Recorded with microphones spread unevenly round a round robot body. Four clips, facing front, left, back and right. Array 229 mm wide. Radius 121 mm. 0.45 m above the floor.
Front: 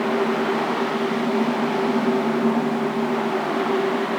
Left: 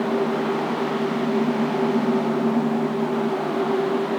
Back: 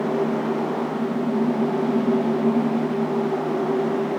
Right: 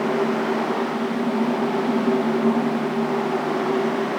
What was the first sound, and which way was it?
Only background noise.